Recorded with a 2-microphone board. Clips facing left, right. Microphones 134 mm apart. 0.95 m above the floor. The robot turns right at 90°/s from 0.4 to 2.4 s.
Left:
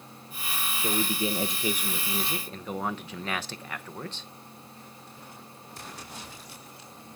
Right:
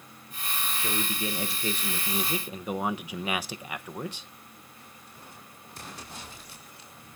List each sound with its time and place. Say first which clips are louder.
0.8 s a man speaking: left 5 dB; 20° left (ahead or behind), 0.8 m; by 4.3 s 10° right (ahead or behind), 0.8 m